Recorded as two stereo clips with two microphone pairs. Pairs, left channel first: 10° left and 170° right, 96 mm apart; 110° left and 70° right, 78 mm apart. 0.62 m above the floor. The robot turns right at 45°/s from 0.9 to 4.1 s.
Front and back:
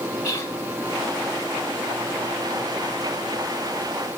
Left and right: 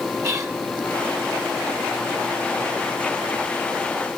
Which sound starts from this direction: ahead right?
Whispering, at 0.2 s.